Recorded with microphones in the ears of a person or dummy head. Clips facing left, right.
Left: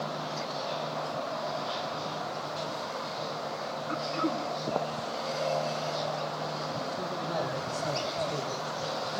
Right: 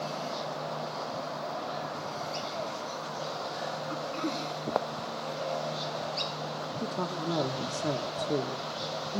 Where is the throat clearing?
25° left (ahead or behind), 1.4 m.